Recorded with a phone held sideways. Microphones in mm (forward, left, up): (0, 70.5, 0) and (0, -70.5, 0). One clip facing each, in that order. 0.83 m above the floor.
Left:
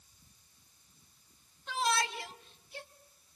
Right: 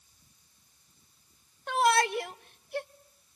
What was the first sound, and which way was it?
A shout, 60° right (ahead or behind).